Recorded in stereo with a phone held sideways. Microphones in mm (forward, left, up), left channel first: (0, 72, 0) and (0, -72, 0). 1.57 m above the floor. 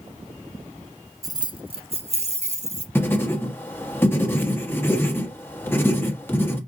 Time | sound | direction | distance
1.2 | keys jangling | 25° right (ahead or behind) | 0.5 m
3.0 | writing | 15° left (ahead or behind) | 1.0 m